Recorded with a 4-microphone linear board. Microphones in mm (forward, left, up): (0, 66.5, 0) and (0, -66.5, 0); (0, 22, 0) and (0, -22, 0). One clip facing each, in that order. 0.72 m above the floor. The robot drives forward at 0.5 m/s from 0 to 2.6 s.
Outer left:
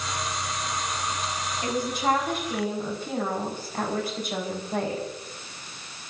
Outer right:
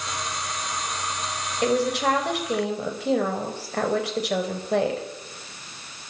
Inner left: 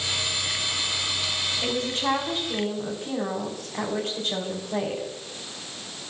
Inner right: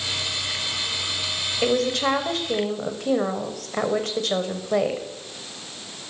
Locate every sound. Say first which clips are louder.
1.6 s a woman speaking: outer right 5 dB, inner right 7 dB; 75° right (ahead or behind), 3.5 m; by 5.1 s 80° right, 3.5 m